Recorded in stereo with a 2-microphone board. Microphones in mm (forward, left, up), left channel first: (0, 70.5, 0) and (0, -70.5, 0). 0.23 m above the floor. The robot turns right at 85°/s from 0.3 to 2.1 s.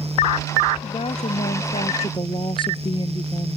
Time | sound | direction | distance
0.8 | a woman speaking | 30° left | ?